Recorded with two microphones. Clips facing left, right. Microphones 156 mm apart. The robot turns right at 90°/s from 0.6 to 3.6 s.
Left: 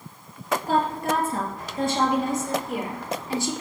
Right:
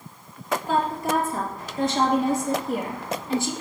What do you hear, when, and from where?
0.7 s a woman speaking: 40° left, 3 m; by 3.5 s 65° right, 3 m